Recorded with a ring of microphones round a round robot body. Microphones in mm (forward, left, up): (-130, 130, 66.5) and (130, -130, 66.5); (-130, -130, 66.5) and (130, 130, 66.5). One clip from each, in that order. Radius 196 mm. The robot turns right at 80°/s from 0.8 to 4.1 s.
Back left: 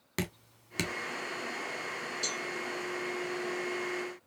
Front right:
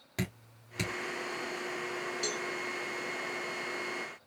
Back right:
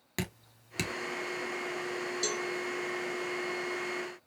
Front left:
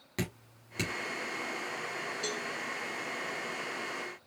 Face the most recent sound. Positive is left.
turn(degrees=5)